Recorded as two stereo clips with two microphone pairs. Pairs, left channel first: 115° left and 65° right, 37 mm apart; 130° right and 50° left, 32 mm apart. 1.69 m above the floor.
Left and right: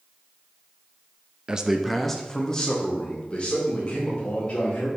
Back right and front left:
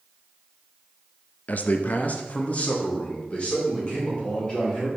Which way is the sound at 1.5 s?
125° right.